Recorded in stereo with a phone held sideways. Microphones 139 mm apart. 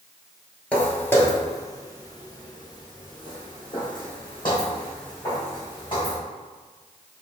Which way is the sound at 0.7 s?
10° left (ahead or behind).